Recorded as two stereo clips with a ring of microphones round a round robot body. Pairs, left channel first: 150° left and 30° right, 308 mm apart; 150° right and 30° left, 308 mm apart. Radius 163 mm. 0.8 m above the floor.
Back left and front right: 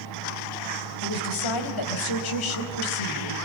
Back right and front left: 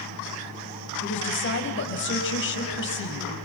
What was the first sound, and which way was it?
A woman speaking, 155° left.